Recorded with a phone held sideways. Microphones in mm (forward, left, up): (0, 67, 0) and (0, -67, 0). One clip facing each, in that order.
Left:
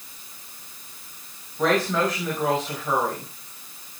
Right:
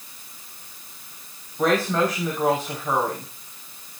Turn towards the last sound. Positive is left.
turn(degrees=-5)  # may be behind; listen again after turning